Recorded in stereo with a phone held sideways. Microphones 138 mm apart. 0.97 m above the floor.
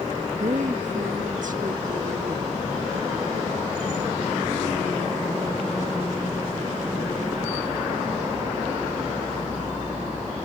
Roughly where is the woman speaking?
Right.